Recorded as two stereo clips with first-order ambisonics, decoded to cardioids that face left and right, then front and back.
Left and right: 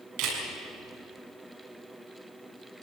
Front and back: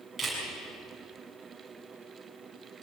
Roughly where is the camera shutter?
Right.